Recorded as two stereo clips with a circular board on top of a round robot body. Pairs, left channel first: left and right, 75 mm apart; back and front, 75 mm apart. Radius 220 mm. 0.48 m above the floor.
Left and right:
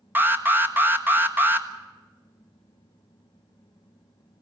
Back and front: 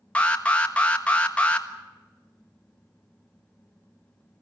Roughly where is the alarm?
Behind right.